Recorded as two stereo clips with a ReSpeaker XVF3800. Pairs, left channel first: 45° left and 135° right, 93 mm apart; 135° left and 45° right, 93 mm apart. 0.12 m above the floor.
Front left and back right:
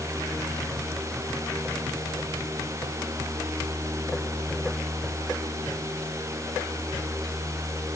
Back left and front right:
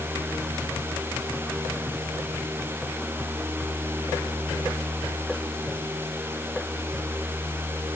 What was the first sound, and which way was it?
Only background noise.